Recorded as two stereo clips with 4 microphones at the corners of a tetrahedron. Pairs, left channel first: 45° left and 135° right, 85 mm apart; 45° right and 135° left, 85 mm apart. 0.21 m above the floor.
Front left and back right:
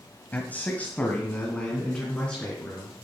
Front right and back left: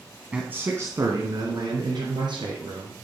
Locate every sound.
0.3 s a man speaking: 85° left, 1.3 m; by 3.0 s 125° left, 3.5 m